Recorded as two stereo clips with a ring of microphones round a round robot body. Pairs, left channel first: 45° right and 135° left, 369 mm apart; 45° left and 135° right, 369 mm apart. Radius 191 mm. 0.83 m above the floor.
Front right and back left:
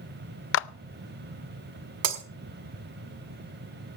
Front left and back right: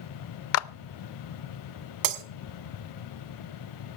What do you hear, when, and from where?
0.5 s a clap: 5° left, 0.6 m
2.0 s breaking glass: 175° right, 1.3 m